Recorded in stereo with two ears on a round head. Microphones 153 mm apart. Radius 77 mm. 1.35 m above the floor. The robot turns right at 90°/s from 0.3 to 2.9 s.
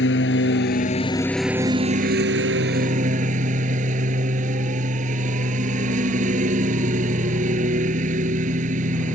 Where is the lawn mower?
80° left; by 9.2 s 45° right.